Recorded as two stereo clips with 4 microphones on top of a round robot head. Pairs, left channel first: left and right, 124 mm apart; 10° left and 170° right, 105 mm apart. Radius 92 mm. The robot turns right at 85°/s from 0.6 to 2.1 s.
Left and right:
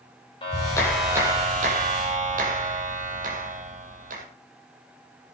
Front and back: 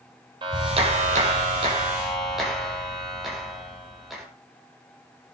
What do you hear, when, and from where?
0.4 s a clap: 150° left, 5.5 m; by 4.2 s 85° right, 5.5 m